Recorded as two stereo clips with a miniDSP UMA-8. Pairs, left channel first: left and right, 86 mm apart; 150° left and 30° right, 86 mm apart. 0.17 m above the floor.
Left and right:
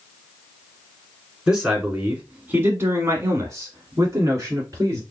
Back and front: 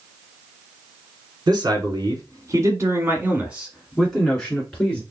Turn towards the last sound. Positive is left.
turn(degrees=-135)